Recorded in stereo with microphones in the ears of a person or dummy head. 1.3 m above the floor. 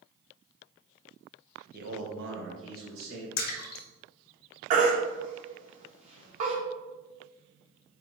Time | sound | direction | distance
1.7 | a man speaking | 50° right (ahead or behind) | 0.9 m
3.4 | a splash | 50° left (ahead or behind) | 0.7 m
4.7 | a baby crying | 45° right (ahead or behind) | 1.1 m